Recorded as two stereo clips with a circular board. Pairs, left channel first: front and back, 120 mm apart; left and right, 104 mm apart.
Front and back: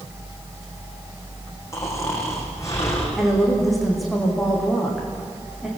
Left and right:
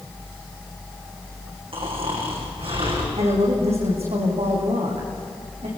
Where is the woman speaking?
90° right, 7.5 m.